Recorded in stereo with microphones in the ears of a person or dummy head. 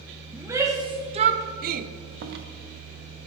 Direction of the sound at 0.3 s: 10° right (ahead or behind).